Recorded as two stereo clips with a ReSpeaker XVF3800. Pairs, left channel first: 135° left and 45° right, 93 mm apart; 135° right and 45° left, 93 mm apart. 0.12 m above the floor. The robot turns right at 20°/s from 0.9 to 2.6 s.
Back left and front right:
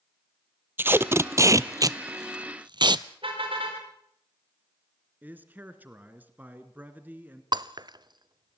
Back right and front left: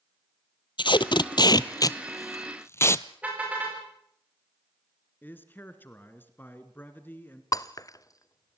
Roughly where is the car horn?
Ahead right.